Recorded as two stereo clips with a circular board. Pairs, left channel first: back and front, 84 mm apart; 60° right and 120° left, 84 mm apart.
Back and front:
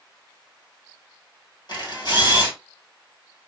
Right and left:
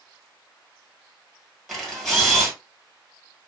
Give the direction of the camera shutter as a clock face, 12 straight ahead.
5 o'clock.